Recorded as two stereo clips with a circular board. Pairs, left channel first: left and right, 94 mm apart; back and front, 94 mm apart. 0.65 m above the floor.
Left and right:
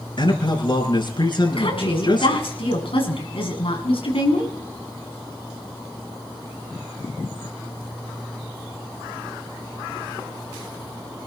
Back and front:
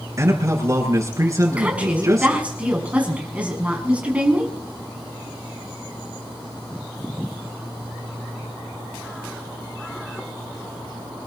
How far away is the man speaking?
About 8 m.